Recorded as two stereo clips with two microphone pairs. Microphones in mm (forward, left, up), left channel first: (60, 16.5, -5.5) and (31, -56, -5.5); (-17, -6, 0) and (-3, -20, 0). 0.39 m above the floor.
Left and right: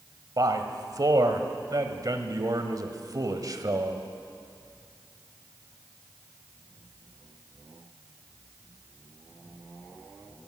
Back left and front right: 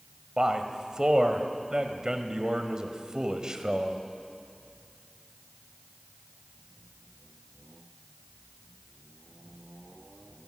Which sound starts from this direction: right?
A man speaking, at 0.4 s.